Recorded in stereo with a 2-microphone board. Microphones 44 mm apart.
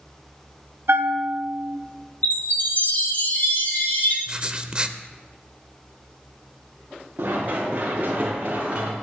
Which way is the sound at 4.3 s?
25° right (ahead or behind).